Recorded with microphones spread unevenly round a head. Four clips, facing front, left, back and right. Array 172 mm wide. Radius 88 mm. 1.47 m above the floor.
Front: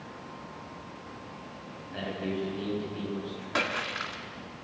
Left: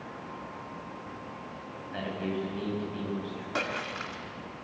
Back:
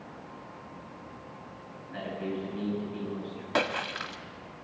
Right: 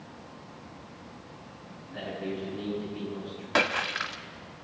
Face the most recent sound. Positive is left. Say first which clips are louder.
# right 7 dB, back 2 dB
turn(degrees=-130)